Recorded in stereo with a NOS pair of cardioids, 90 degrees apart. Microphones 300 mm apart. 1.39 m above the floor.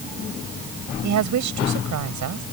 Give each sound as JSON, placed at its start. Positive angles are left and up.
{"t": 1.0, "sound": "a woman speaking", "azimuth_deg": -70}